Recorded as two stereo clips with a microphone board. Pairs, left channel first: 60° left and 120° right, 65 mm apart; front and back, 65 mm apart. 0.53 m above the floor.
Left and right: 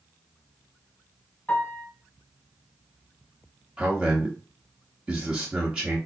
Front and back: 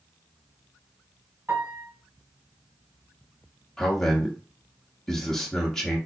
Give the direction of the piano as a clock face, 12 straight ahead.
8 o'clock.